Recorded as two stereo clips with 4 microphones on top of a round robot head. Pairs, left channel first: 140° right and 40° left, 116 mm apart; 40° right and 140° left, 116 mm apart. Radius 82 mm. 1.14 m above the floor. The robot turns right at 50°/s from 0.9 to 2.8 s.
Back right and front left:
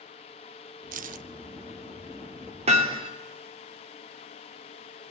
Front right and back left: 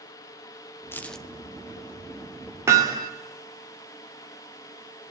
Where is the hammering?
70° left, 2.5 m; by 3.1 s 80° left, 2.5 m.